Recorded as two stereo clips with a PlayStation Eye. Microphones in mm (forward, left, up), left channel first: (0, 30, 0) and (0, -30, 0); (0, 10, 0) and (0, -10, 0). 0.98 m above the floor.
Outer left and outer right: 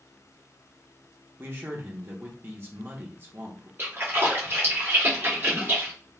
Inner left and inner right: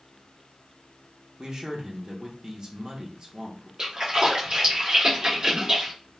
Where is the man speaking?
40° right (ahead or behind), 0.8 m.